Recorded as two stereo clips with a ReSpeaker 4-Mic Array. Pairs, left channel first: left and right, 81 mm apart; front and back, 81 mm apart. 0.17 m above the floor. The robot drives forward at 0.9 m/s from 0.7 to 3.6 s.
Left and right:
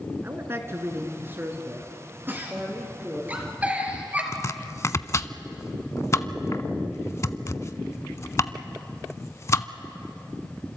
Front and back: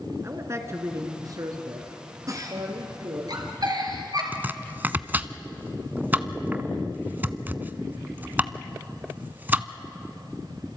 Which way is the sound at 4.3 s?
120° left.